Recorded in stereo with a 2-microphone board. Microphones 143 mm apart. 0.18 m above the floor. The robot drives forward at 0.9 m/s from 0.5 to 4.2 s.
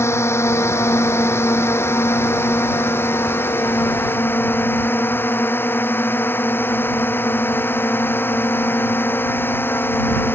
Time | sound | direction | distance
0.0 | a drone | 20° left (ahead or behind) | ?